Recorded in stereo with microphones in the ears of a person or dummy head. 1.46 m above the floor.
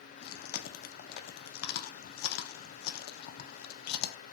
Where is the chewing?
60° left (ahead or behind), 0.5 m.